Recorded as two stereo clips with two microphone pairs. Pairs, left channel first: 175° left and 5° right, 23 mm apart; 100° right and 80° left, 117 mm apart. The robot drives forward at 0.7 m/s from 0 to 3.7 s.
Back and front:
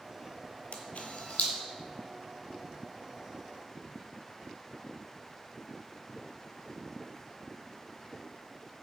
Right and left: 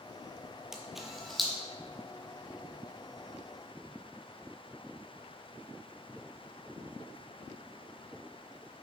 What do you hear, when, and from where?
0.7 s a camera shutter: 165° left, 0.8 m; by 1.5 s 170° left, 1.3 m